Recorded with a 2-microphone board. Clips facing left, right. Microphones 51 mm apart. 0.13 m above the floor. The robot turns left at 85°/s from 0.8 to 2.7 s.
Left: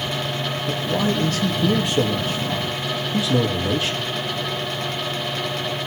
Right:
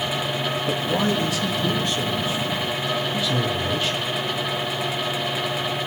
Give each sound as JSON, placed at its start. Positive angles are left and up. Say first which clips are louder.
{"t": 0.7, "sound": "a man speaking", "louder": "left 1 dB", "azimuth_deg": 180, "distance_m": 4.0}